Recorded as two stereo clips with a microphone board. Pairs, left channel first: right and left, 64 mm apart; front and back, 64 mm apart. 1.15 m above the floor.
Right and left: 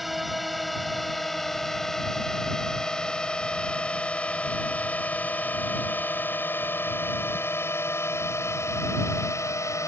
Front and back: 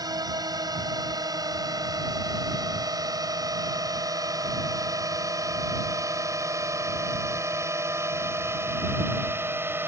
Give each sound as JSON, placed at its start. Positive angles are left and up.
{"t": 0.0, "sound": "a drone", "azimuth_deg": 180}